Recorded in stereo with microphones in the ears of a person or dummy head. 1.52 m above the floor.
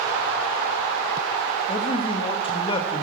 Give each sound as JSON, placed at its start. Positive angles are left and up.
{"t": 1.7, "sound": "a man speaking", "side_deg": 30, "distance_m": 1.8}